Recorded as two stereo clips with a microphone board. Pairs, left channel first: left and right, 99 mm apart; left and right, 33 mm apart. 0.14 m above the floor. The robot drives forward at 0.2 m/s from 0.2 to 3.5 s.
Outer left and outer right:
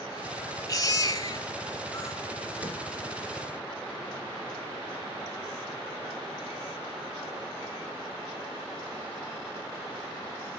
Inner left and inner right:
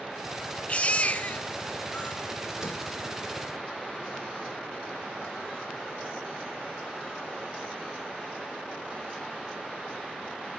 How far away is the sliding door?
About 1.8 m.